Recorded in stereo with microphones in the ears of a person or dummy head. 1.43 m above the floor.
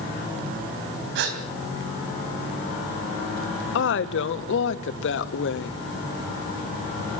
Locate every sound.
1.1 s a gasp: 70° right (ahead or behind), 3 m
3.8 s a woman speaking: 75° left (ahead or behind), 1.4 m